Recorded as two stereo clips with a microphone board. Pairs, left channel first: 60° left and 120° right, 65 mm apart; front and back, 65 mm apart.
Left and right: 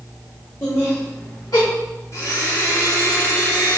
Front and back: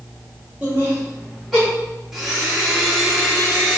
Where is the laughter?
105° left, 2.5 m; by 1.7 s 90° left, 2.5 m.